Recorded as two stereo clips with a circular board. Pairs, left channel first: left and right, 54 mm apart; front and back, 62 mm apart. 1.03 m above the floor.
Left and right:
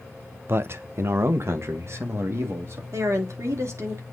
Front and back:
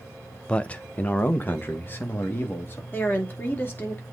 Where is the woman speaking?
60° right, 2.5 m.